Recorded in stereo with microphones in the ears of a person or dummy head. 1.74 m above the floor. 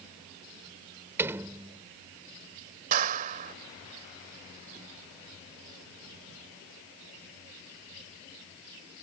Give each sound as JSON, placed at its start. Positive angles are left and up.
{"t": 1.2, "sound": "a door slam", "side_deg": -15}
{"t": 2.9, "sound": "a clap", "side_deg": -45}